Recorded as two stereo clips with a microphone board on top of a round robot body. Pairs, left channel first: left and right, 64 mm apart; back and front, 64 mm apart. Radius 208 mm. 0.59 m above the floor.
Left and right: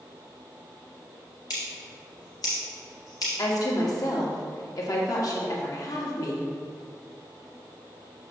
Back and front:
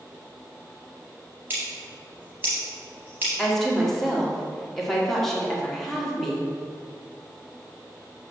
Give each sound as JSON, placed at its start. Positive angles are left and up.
{"t": 1.5, "sound": "scissors", "azimuth_deg": 60, "distance_m": 0.7}
{"t": 3.4, "sound": "a woman speaking", "azimuth_deg": 95, "distance_m": 1.8}